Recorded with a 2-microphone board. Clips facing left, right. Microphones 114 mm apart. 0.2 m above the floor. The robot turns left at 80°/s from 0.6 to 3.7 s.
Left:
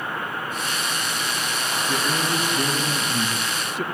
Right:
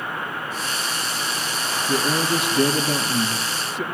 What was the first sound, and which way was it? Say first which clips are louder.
A man speaking: right 4 dB; 40° right.